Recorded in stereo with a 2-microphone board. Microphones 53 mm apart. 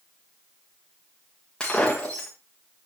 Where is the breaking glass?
15° left (ahead or behind), 5.5 m.